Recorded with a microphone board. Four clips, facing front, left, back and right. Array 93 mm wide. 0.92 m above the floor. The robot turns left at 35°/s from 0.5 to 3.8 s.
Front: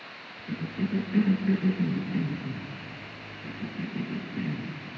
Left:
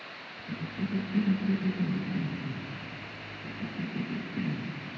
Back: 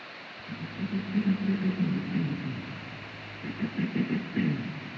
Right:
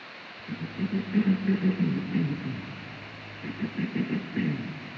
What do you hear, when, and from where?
0.5 s a cough: 20° right, 1.1 m; by 4.8 s 135° right, 1.1 m